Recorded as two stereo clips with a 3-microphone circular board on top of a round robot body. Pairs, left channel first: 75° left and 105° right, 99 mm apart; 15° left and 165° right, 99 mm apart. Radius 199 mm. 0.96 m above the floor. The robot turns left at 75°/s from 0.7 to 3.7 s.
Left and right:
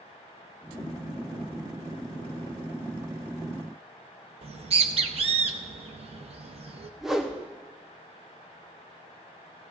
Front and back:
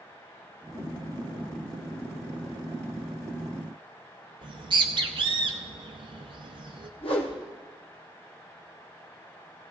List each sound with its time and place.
4.4 s a bird: 125° right, 0.7 m
7.0 s a whoosh: 20° right, 1.0 m